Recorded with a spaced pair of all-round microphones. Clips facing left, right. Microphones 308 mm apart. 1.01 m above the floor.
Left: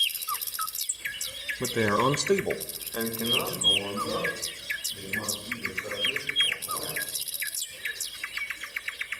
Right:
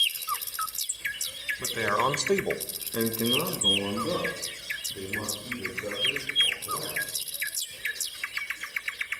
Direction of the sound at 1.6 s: 60° left (ahead or behind).